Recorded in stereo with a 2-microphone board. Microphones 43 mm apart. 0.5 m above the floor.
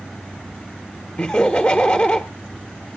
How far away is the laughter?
About 1.0 m.